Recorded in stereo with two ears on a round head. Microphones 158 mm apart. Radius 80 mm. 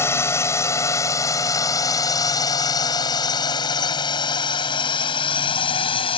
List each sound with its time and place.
0.0 s a drone: 15° left (ahead or behind); by 6.2 s 30° left (ahead or behind)